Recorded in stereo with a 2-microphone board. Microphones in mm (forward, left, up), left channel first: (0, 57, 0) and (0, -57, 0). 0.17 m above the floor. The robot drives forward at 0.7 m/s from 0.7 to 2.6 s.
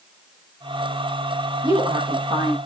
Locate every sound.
1.6 s a woman speaking: 40° right (ahead or behind), 9.5 m